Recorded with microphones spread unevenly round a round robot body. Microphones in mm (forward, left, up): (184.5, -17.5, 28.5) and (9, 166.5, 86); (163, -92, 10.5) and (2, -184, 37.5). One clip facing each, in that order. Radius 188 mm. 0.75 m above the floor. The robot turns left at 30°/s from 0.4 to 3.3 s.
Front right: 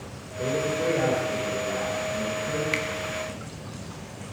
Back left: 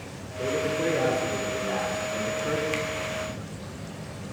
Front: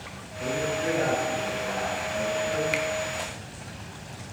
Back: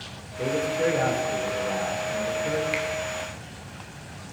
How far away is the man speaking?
About 3 m.